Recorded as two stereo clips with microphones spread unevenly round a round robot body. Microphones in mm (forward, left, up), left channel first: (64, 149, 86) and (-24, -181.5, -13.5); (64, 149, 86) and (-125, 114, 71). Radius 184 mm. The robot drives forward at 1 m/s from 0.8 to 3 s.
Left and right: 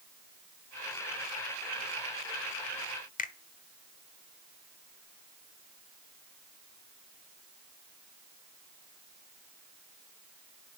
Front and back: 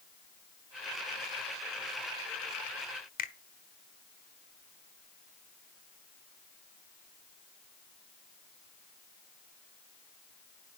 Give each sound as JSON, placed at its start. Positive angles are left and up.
{"t": 3.2, "sound": "a finger snap", "azimuth_deg": -5, "distance_m": 0.9}